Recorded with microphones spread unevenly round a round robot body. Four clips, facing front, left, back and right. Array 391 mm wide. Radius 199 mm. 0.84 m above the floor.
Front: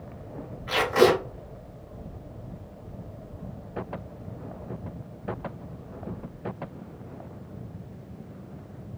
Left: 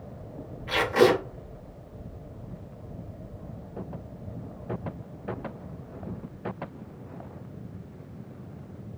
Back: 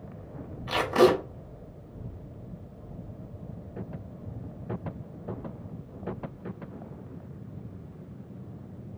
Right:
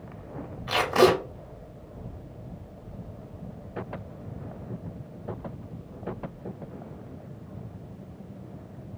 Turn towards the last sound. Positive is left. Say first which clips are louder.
# even, front 1 dB
turn(degrees=-155)